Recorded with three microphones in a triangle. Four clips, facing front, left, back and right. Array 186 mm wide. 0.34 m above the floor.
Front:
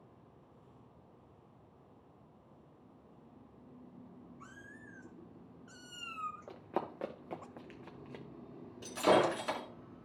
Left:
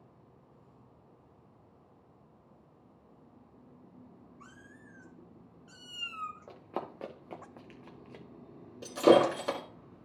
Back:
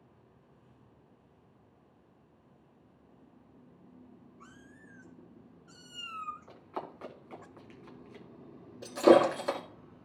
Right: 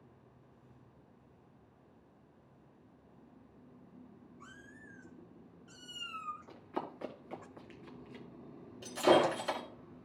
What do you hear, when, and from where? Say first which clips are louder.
4.4 s a cat meowing: right 1 dB, front 1 dB; 40° left, 3 m; by 7.5 s 75° left, 0.5 m
6.5 s running footsteps: left 2 dB, front 3 dB; 40° left, 2.5 m
8.8 s breaking glass: left 5 dB, back 7 dB; 120° left, 2 m